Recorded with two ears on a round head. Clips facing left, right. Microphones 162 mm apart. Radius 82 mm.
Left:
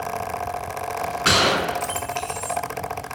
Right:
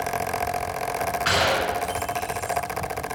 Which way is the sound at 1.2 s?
55° left (ahead or behind).